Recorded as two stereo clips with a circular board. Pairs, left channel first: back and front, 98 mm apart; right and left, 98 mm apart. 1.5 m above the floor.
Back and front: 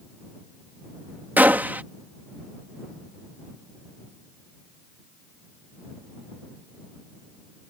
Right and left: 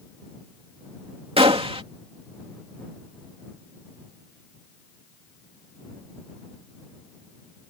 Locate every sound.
1.4 s a gunshot: 70° left